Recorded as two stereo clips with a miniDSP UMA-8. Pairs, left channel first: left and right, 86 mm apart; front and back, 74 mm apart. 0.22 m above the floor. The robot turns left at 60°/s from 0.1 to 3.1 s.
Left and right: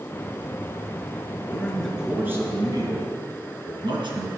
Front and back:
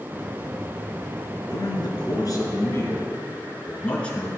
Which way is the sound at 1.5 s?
20° left.